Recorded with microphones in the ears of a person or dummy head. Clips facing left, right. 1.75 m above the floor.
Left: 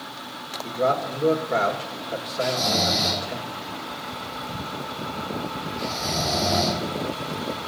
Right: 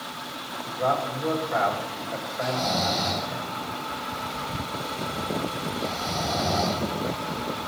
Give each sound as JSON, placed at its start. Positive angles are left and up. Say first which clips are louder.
{"t": 0.6, "sound": "a man speaking", "louder": "left 3 dB", "side_deg": 45, "distance_m": 2.5}
{"t": 2.4, "sound": "snoring", "louder": "left 2 dB", "side_deg": 50, "distance_m": 2.5}